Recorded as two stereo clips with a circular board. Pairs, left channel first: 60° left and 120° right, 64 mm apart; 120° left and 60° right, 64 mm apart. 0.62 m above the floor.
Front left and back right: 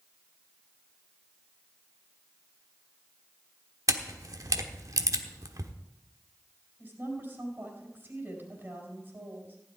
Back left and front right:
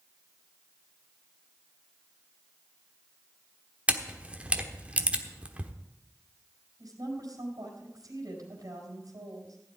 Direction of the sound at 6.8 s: 65° right.